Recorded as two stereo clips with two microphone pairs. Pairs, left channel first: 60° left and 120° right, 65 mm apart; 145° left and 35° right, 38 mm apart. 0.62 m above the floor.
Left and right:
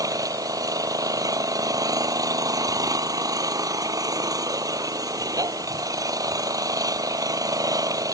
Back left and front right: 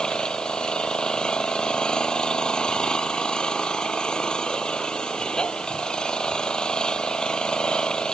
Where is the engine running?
145° right.